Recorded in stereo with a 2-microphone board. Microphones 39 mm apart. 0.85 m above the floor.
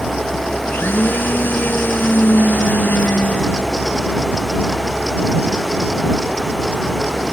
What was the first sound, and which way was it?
A blender, 60° left (ahead or behind).